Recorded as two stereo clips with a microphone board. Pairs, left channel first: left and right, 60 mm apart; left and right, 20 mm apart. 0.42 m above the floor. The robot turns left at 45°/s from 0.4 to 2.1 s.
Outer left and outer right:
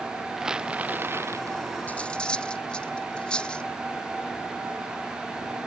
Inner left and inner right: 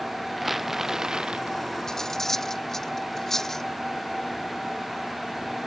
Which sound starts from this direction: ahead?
Crumpling, at 0.4 s.